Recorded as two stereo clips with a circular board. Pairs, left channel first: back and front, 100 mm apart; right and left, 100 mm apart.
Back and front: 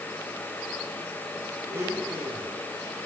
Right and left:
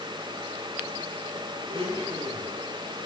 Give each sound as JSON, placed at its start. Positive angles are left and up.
{"t": 1.7, "sound": "a blender", "azimuth_deg": 65, "distance_m": 9.0}